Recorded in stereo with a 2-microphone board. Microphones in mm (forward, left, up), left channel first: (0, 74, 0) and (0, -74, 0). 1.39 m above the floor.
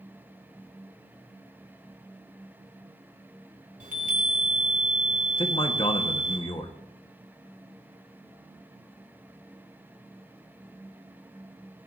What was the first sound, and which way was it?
A chime, 65° right (ahead or behind).